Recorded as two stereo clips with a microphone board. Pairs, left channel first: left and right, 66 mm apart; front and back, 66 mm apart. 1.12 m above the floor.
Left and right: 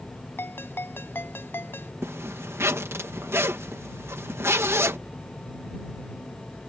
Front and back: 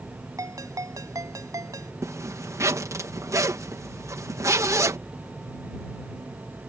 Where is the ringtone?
145° left.